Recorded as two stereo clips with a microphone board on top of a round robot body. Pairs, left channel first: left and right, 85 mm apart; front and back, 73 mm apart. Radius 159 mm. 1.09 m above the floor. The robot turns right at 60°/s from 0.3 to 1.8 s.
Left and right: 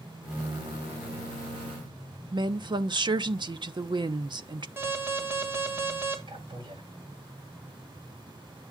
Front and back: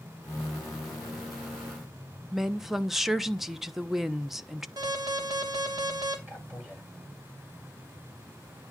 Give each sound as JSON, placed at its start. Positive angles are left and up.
{"t": 2.3, "sound": "a woman speaking", "azimuth_deg": -95, "distance_m": 0.8}
{"t": 4.8, "sound": "an alarm", "azimuth_deg": -150, "distance_m": 2.5}
{"t": 6.3, "sound": "a man speaking", "azimuth_deg": -115, "distance_m": 8.5}